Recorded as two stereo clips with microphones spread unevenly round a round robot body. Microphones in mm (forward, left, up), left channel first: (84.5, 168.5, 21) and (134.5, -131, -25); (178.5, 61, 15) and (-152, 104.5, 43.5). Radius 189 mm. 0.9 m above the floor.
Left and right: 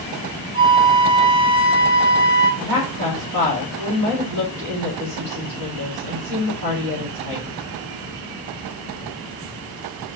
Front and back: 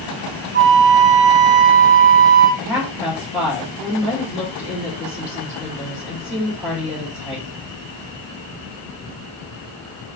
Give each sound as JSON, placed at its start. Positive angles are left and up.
{"t": 0.5, "sound": "a flute", "azimuth_deg": -130, "distance_m": 1.0}
{"t": 2.6, "sound": "a woman speaking", "azimuth_deg": -100, "distance_m": 1.5}